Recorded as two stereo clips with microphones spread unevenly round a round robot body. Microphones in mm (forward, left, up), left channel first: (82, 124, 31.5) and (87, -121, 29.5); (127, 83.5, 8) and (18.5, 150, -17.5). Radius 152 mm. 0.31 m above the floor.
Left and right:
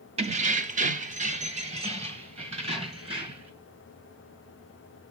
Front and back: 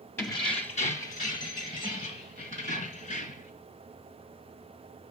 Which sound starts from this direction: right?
Keys jangling, at 0.2 s.